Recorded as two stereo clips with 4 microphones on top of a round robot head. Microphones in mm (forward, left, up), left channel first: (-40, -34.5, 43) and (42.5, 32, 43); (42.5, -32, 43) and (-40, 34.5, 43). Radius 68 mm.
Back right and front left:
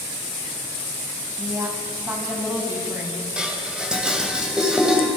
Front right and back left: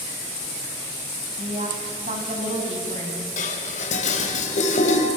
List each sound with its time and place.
1.4 s a woman speaking: 115° left, 4.5 m; by 3.3 s 110° left, 6 m
3.4 s dishes clattering: 45° right, 3 m